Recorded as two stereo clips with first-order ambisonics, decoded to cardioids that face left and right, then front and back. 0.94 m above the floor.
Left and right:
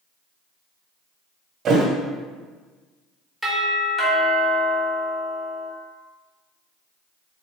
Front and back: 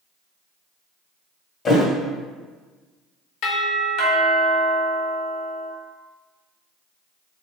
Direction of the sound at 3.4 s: 5° left.